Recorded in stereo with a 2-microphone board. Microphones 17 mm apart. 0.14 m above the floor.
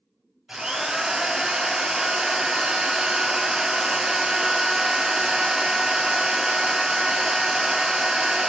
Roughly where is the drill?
Right.